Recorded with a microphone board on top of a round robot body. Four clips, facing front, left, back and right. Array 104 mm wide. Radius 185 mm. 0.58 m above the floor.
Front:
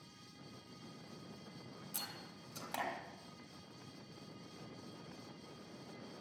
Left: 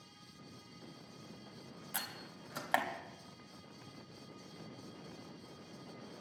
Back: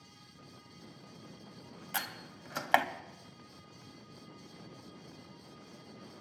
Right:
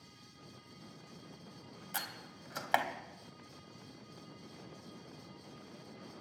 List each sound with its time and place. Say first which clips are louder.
1.9 s a door slam: right 3 dB, back 15 dB; 175° right, 1.1 m